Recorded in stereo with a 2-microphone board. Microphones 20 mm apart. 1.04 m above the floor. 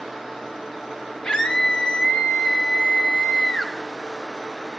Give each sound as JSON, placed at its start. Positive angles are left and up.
{"t": 1.2, "sound": "a scream", "side_deg": 55, "distance_m": 2.5}